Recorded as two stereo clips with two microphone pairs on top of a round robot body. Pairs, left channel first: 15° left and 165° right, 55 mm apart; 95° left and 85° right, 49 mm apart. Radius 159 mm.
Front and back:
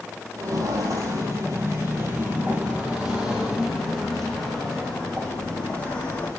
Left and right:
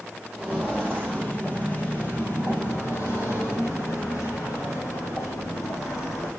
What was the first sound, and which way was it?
Footsteps, 175° left.